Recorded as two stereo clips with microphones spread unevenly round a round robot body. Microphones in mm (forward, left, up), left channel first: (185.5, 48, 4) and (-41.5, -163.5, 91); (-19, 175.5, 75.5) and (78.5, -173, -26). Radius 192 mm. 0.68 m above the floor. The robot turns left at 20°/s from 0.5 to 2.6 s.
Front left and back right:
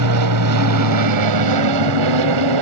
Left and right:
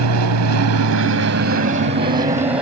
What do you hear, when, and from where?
0.0 s an aircraft: 115° right; by 2.6 s 155° right